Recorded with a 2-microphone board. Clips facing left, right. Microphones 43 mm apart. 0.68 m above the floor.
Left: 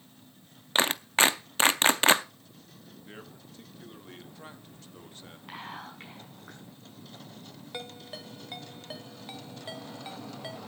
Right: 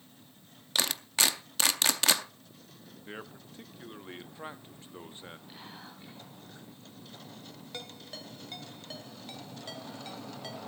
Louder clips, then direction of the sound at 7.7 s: Left 4 dB; 20° left (ahead or behind).